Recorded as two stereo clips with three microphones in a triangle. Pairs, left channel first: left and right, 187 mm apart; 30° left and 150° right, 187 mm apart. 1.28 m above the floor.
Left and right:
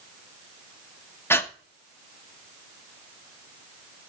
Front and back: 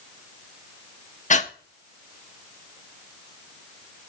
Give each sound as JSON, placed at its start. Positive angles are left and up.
{"t": 1.3, "sound": "breathing", "azimuth_deg": 20, "distance_m": 0.8}